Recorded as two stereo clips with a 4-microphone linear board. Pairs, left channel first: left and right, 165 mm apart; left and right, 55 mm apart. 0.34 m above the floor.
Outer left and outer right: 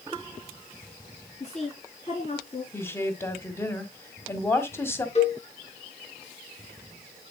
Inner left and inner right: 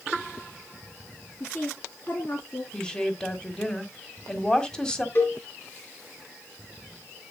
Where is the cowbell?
40° left (ahead or behind), 3.5 m.